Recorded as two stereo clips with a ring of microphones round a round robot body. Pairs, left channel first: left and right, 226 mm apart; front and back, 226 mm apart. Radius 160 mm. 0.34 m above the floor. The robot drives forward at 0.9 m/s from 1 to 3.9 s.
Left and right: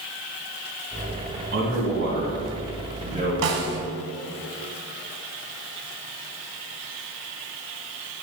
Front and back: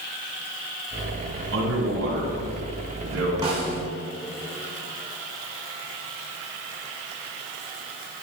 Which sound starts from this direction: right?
A snare drum, at 3.4 s.